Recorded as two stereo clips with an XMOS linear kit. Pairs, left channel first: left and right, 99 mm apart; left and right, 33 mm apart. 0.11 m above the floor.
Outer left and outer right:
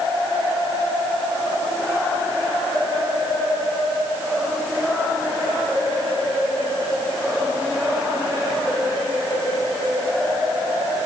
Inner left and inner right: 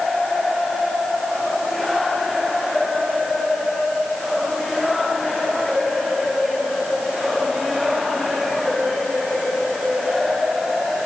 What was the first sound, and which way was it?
Only background noise.